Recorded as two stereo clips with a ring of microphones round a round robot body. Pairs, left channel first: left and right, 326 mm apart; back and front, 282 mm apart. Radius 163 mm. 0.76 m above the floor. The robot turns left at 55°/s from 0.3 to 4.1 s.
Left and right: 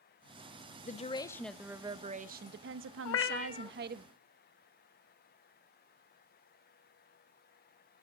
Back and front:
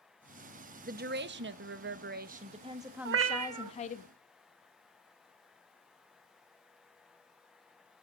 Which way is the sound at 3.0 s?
45° left.